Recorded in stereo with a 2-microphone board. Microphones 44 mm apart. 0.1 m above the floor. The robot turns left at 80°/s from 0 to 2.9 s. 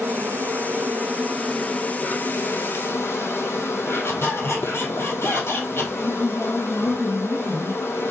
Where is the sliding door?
No sliding door in this recording.